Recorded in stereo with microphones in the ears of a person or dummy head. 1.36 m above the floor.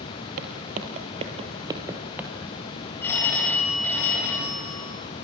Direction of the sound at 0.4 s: 40° right (ahead or behind).